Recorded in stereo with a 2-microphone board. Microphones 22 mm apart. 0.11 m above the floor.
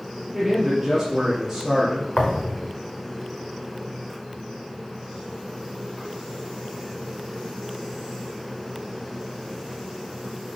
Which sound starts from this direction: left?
A thud, at 2.1 s.